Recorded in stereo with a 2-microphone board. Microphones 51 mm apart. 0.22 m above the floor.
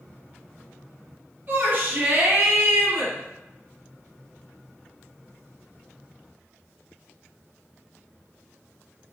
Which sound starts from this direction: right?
A shout, at 1.5 s.